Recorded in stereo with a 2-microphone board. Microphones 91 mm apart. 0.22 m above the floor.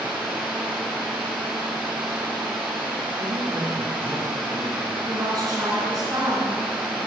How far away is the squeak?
No squeak in this recording.